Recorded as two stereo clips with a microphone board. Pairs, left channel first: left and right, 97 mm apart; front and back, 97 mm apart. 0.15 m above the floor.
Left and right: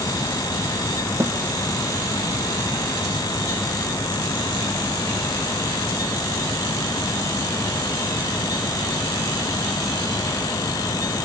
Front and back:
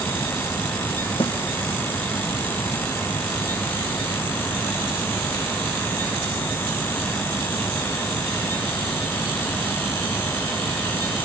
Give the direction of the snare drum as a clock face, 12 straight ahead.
1 o'clock.